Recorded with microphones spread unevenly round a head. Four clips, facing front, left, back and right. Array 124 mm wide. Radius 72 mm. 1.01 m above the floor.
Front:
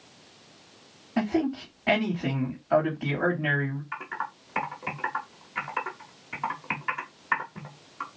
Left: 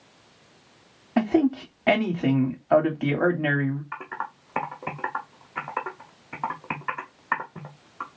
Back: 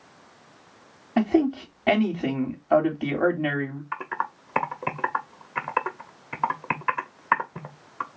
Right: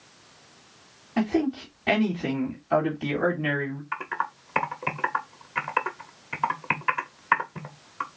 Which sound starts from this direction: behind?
Typing on a keyboard, at 3.9 s.